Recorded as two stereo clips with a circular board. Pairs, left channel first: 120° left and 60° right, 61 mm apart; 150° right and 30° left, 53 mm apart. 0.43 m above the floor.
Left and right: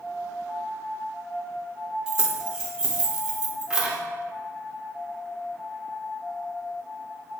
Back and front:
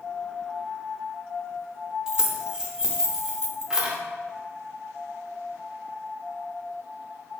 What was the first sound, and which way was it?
Keys jangling, 10° right.